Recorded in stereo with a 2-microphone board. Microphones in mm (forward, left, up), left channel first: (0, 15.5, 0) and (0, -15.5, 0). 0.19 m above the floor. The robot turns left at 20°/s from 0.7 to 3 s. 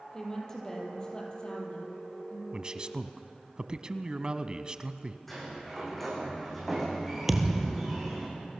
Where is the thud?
5° right (ahead or behind), 1.8 m.